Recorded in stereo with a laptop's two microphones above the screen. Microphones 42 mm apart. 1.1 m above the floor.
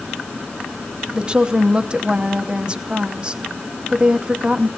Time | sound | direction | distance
1.1 | a woman speaking | 25° right (ahead or behind) | 0.8 m